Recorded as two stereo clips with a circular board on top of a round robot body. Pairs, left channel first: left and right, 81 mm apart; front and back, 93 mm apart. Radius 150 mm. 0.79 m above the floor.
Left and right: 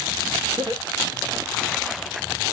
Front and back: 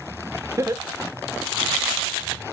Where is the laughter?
125° right, 1.9 m; by 1.7 s 120° right, 2.5 m.